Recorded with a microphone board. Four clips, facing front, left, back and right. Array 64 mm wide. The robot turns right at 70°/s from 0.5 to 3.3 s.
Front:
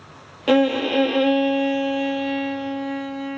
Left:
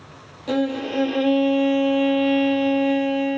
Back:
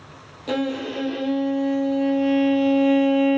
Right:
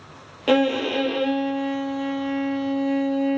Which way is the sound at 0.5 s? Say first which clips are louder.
Right 3 dB, front 7 dB; 45° right.